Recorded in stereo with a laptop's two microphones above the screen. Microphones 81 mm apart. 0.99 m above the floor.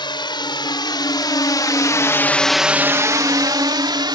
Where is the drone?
75° left (ahead or behind); by 4.2 s 70° right (ahead or behind).